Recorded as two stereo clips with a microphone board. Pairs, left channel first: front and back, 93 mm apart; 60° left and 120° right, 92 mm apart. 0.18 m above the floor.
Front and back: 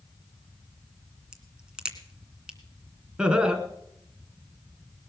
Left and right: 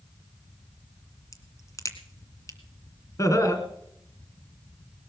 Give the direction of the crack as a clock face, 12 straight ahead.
9 o'clock.